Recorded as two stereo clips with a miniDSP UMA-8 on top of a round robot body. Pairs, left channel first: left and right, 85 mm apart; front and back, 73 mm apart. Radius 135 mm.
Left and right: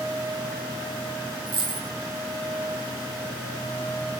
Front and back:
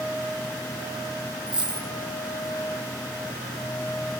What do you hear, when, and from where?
1.5 s a dropped coin: 105° right, 4 m